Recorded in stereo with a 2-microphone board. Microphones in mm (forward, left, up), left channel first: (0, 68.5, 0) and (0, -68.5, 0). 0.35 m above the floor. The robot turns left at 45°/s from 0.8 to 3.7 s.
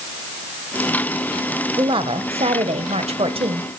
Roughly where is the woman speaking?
Ahead right.